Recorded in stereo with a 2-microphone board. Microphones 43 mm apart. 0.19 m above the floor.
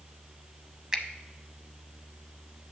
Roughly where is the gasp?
No gasp in this recording.